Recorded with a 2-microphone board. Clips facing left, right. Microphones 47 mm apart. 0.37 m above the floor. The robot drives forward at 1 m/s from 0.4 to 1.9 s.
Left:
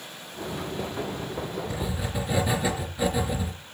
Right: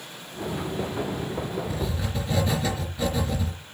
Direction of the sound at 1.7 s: 15° left (ahead or behind).